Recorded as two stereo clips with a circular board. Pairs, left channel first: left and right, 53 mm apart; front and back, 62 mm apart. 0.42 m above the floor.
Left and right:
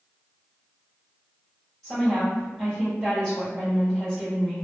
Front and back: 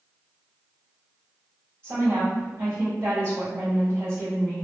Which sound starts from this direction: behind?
A woman speaking, at 1.8 s.